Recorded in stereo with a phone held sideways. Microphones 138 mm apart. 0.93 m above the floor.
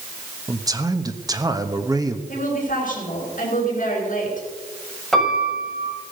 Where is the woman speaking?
60° left (ahead or behind), 4.5 m.